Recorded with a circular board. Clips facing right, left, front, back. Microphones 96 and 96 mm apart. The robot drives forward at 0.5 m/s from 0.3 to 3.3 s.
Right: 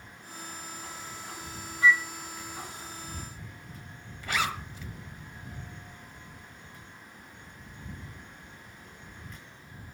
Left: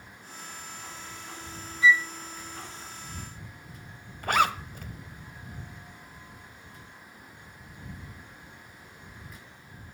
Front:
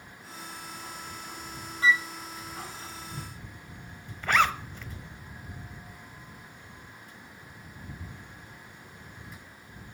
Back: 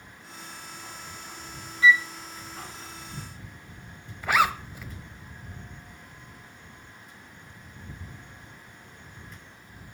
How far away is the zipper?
About 1.6 m.